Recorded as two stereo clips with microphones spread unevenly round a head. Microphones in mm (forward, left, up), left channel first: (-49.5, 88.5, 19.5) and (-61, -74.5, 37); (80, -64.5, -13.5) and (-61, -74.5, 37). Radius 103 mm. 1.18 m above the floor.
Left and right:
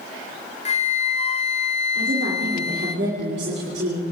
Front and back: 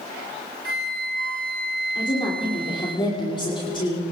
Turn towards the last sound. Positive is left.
turn(degrees=-55)